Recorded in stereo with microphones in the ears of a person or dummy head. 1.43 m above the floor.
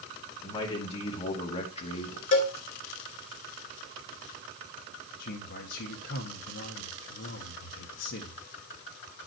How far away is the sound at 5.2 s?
About 1.3 m.